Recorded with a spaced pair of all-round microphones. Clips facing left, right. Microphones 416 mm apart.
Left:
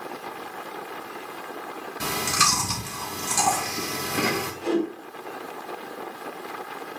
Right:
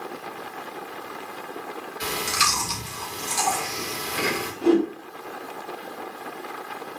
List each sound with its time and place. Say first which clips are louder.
2.0 s chewing: left 2 dB; 65° left (ahead or behind), 3 m
4.6 s a whoosh: right 6 dB; 80° right, 4.5 m